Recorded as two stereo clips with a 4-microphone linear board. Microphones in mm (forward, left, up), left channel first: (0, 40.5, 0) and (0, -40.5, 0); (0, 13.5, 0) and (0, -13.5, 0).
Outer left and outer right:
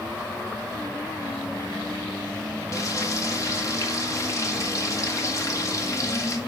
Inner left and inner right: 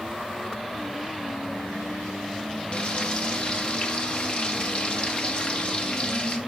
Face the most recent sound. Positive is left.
turn(degrees=40)  # may be behind; listen again after turning